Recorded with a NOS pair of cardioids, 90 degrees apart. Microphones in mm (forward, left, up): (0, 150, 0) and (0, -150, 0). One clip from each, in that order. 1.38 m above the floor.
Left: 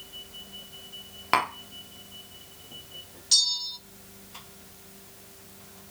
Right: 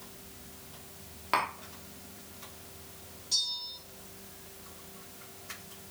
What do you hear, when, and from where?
1.3 s tapping: 35° left, 0.7 m
3.3 s a bell: 65° left, 0.5 m